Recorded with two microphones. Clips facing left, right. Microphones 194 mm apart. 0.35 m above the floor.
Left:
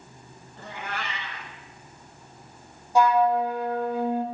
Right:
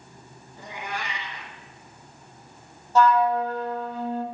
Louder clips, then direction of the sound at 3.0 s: Even; 15° left (ahead or behind).